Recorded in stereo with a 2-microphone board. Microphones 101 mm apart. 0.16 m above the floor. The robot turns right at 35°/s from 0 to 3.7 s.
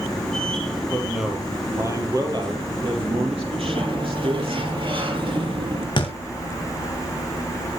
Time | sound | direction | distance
0.9 | a man speaking | 175° left | 5.5 m
3.6 | a sliding door | 60° right (ahead or behind) | 4.5 m
6.0 | a thud | 50° left (ahead or behind) | 5 m